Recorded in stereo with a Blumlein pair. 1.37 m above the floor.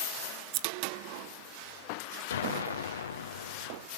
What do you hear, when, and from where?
0.5 s scissors: 45° right, 0.6 m
2.3 s an explosion: 65° left, 0.7 m